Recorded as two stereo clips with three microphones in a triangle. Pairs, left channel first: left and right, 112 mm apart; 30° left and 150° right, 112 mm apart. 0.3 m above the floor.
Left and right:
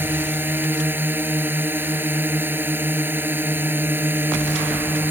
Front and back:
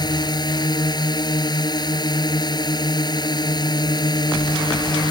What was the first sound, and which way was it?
A drone, 20° right.